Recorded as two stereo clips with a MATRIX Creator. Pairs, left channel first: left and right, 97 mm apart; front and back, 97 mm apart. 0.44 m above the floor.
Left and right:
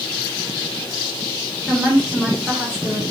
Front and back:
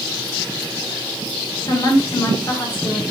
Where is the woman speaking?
10° right, 1.7 m.